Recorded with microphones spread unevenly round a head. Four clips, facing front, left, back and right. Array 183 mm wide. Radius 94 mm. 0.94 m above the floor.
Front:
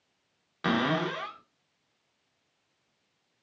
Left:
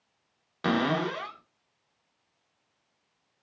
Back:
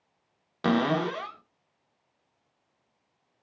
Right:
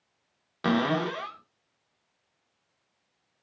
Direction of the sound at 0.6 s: 175° right.